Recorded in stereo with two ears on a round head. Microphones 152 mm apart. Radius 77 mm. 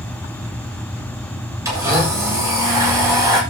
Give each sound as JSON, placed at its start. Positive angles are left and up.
{"t": 1.6, "sound": "a blender", "side_deg": -20, "distance_m": 7.0}